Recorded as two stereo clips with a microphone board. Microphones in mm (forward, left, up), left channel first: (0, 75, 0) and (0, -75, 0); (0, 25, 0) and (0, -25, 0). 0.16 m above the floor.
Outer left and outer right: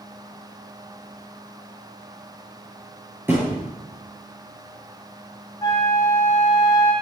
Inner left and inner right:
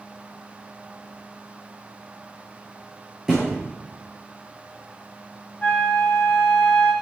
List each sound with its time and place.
3.3 s a thud: 15° right (ahead or behind), 8.5 m
5.6 s a flute: 25° left (ahead or behind), 2.5 m